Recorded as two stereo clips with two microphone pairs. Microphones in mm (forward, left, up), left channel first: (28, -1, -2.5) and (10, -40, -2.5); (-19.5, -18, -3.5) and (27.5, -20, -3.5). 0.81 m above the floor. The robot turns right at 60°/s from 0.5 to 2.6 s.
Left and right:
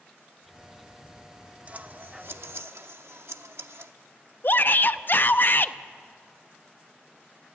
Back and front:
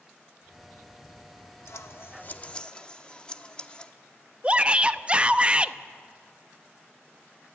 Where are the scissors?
170° right, 0.9 m; by 3.9 s 115° right, 0.9 m.